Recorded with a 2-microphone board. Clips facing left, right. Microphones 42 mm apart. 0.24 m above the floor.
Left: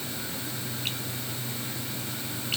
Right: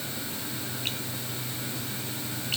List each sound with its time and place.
Only background noise.